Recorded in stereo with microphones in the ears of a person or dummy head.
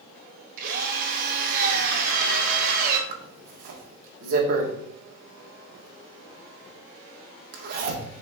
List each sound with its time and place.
0.6 s a drill: 50° right (ahead or behind), 1.8 m
3.1 s a zipper: 50° right (ahead or behind), 1.6 m